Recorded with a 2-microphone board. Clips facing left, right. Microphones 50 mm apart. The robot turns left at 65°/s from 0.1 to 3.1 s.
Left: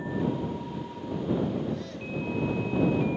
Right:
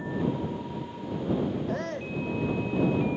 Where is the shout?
115° right; by 2.2 s 150° right.